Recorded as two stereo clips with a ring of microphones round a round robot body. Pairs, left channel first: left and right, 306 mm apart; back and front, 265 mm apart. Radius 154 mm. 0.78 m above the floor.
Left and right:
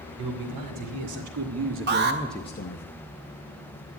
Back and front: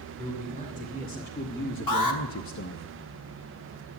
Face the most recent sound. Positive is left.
turn(degrees=-150)